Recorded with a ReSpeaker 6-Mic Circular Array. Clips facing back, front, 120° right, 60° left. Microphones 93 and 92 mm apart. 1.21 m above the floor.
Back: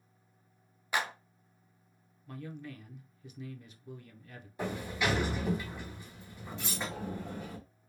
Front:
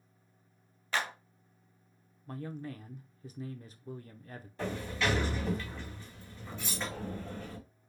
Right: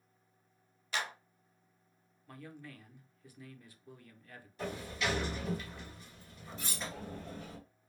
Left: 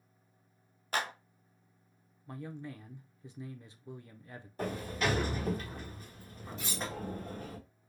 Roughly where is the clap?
Left.